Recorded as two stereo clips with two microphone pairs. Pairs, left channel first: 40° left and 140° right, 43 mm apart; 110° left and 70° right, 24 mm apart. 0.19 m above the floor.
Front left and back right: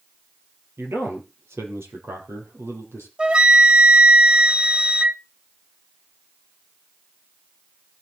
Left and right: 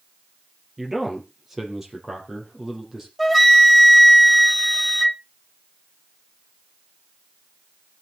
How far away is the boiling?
I don't hear boiling.